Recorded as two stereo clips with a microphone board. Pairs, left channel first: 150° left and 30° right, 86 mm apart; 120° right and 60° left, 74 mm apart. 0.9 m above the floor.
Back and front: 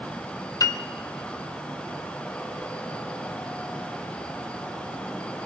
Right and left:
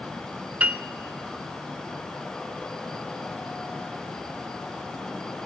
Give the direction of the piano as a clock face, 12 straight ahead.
8 o'clock.